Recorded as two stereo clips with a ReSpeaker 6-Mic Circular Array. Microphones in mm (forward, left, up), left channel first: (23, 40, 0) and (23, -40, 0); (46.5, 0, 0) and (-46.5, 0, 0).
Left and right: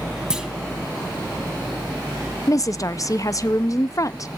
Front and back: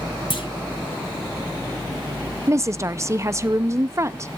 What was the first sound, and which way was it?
A clunk, 10° right.